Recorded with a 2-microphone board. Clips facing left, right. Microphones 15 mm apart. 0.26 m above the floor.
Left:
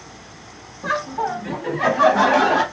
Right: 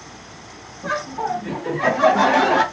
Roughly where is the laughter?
Left.